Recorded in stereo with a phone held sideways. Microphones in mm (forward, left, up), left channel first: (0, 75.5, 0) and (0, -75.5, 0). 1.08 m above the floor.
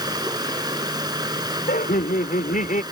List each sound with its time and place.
0.0 s running water: 30° right (ahead or behind)
1.7 s laughter: 70° left (ahead or behind)